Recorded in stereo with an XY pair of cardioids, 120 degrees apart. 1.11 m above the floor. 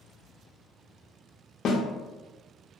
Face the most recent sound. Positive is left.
turn(degrees=55)